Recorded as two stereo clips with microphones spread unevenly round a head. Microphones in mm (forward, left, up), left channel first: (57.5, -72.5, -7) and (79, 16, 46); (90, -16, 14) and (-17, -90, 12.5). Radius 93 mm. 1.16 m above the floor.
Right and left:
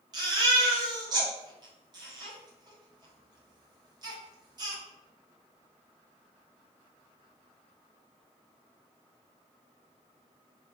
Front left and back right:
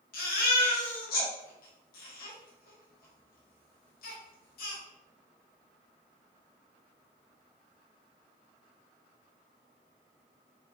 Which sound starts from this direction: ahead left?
A baby crying, at 0.1 s.